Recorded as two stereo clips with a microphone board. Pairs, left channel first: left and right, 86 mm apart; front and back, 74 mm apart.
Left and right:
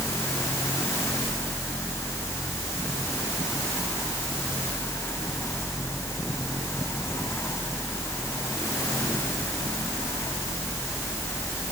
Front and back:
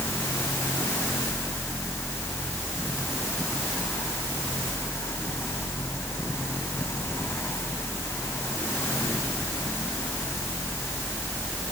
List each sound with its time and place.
Only background noise.